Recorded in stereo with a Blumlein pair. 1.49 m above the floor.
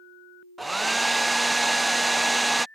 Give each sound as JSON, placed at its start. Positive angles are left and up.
{"t": 0.6, "sound": "a hair dryer", "azimuth_deg": -5}